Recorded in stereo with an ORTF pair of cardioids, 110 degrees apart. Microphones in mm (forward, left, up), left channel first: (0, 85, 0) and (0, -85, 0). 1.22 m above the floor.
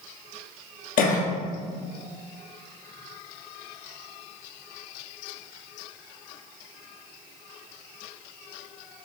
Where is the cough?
60° left, 1.0 m.